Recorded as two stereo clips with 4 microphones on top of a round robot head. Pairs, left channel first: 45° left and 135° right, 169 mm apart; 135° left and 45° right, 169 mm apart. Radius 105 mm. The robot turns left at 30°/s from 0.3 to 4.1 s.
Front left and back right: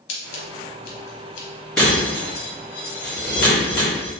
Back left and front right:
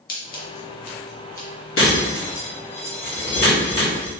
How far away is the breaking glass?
About 1.8 m.